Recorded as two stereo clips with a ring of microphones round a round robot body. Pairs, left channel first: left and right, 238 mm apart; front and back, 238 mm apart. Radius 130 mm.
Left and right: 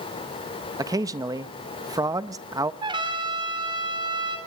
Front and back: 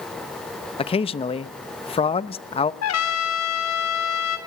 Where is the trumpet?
15° right, 3 m.